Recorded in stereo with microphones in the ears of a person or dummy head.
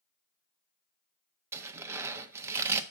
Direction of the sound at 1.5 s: 15° right (ahead or behind).